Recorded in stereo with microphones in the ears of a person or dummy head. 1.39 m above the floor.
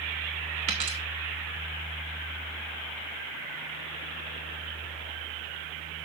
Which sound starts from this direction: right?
A dropped coin, at 0.7 s.